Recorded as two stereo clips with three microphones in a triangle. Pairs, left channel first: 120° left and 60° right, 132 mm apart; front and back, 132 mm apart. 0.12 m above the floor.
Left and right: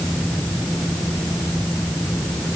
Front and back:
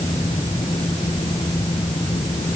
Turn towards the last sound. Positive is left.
No sound to turn to.